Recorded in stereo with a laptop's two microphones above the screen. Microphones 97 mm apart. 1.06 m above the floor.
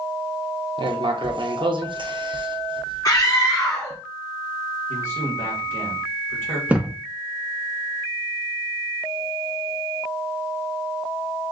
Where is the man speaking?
25° left (ahead or behind), 1.6 m.